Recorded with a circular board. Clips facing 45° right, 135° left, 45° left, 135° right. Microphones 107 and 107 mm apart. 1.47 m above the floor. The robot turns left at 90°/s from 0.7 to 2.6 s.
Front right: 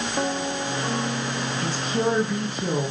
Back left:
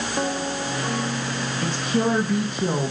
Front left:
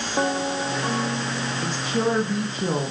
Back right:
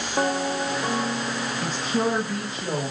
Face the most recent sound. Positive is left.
turn(degrees=100)